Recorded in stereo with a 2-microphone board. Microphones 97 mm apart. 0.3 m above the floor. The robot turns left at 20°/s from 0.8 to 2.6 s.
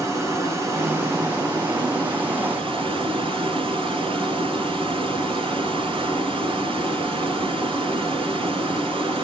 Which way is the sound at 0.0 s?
35° right.